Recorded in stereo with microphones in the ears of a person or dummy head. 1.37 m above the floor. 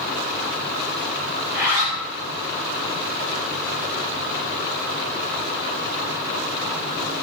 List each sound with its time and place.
1.4 s a zipper: 20° right (ahead or behind), 2.5 m